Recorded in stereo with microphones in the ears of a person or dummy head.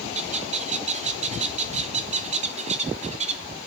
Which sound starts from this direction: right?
A bird, at 0.1 s.